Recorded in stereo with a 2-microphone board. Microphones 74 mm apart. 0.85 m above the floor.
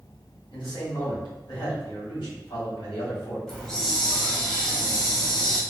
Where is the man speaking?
80° left, 1.9 m.